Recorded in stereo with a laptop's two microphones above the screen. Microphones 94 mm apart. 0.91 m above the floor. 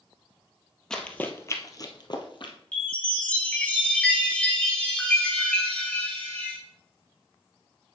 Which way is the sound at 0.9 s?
5° left (ahead or behind).